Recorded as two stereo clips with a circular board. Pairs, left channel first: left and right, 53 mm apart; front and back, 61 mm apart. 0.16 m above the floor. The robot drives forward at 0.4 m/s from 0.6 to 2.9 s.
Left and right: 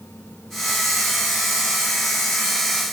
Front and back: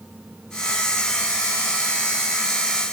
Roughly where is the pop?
I don't hear a pop.